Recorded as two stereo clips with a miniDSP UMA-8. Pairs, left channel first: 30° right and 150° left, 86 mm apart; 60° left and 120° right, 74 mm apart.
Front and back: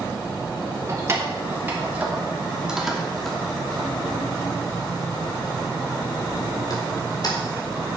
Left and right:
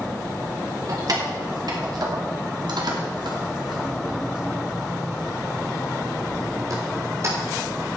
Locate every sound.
0.9 s keys jangling: 155° right, 3 m; by 7.9 s 65° right, 4 m